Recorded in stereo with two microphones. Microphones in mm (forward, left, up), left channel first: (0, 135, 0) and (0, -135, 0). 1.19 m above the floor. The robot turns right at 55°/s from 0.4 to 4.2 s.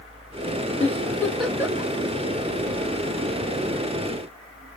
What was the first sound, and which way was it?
A giggle, 25° left (ahead or behind).